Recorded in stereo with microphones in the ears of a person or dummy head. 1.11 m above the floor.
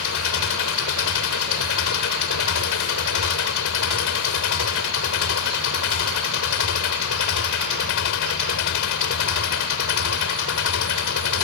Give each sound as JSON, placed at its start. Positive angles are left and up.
{"t": 0.0, "sound": "an engine running", "side_deg": 75}